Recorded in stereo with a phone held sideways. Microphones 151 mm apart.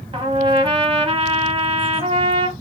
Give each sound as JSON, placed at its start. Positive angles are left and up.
{"t": 0.1, "sound": "a trumpet", "side_deg": -35, "distance_m": 0.8}